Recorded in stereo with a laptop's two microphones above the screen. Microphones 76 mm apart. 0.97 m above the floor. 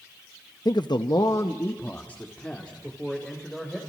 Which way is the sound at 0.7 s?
65° left (ahead or behind).